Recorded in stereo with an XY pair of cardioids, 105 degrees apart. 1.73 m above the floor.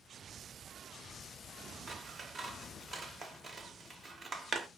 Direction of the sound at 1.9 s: 35° right.